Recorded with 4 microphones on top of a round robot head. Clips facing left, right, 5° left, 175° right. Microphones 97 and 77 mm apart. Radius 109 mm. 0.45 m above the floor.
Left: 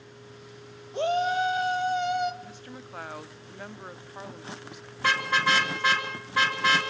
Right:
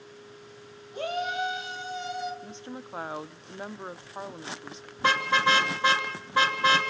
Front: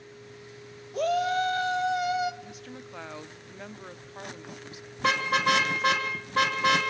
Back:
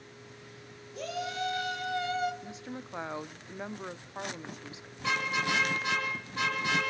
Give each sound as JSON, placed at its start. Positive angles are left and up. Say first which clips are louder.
{"t": 0.9, "sound": "a shout", "louder": "left 5 dB, front 10 dB", "azimuth_deg": 30, "distance_m": 2.0}
{"t": 2.4, "sound": "a woman speaking", "louder": "right 3 dB, back 1 dB", "azimuth_deg": -130, "distance_m": 0.8}
{"t": 5.0, "sound": "a car horn", "louder": "right 2 dB, front 6 dB", "azimuth_deg": -25, "distance_m": 3.0}